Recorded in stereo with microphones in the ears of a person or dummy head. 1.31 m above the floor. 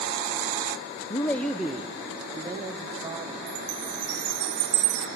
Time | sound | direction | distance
1.1 | a man speaking | 25° left (ahead or behind) | 0.6 m
3.5 | a chime | 45° right (ahead or behind) | 1.1 m